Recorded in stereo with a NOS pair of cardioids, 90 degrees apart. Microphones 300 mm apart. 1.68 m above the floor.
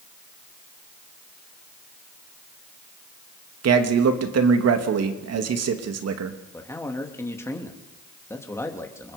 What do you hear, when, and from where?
3.6 s a man speaking: 55° right, 2.5 m
6.5 s a man speaking: 10° left, 3 m